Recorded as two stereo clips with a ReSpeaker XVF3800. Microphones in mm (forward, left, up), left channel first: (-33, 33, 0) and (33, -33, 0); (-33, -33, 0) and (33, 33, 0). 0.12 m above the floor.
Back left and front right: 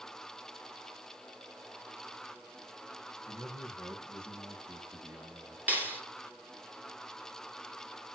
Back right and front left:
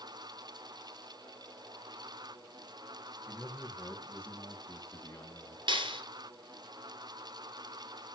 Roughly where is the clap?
Ahead left.